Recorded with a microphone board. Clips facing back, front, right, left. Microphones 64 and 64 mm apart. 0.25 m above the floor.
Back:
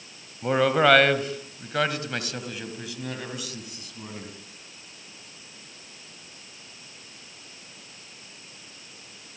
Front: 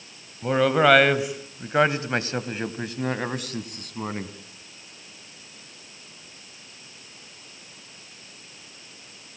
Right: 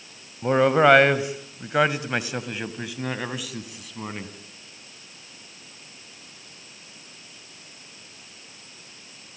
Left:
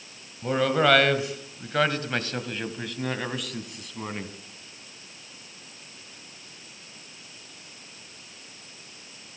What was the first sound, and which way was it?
A man speaking, 100° right.